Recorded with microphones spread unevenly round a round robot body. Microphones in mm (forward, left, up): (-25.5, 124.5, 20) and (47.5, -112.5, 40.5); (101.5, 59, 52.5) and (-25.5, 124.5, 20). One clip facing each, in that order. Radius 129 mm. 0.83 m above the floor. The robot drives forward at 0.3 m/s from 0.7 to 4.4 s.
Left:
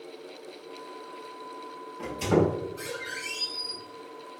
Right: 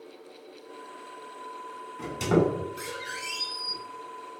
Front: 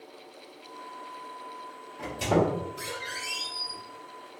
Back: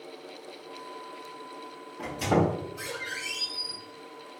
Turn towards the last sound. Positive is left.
turn(degrees=-125)